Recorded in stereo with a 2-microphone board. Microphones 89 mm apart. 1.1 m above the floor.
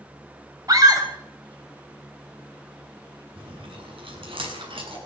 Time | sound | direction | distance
0.7 | a scream | 45° right (ahead or behind) | 5.5 m
3.4 | chewing | 85° right | 8.5 m